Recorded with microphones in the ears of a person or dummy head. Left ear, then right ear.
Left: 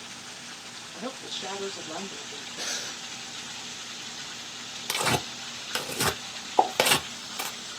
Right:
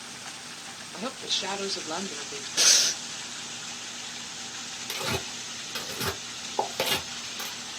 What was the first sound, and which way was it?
A woman speaking, 35° right (ahead or behind).